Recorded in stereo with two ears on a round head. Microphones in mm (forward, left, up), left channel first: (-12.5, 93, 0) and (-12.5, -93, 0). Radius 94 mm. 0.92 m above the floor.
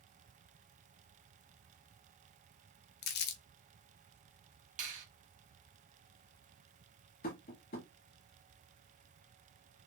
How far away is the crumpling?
About 0.6 m.